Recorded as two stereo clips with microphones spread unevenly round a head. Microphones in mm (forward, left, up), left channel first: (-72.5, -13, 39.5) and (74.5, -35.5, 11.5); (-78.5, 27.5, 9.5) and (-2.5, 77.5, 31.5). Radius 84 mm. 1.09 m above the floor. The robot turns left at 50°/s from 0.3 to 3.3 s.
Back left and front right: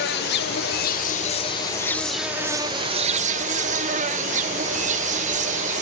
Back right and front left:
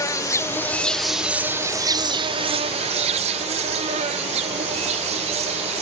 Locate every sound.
0.0 s an insect: 170° left, 0.8 m; by 5.8 s 20° left, 0.8 m